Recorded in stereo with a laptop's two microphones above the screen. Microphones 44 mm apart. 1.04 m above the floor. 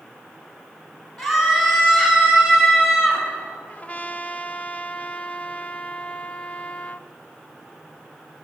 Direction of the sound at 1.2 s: Centre (ahead or behind).